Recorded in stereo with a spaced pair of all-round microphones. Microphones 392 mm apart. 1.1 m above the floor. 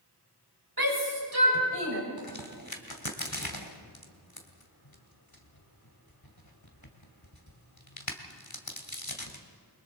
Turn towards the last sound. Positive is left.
turn(degrees=65)  # may be behind; listen again after turning